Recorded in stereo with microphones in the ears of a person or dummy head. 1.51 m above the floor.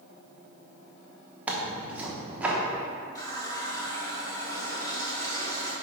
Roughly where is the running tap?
Centre.